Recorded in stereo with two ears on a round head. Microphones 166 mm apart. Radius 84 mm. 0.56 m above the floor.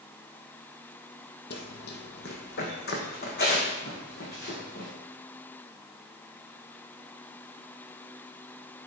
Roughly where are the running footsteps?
Left.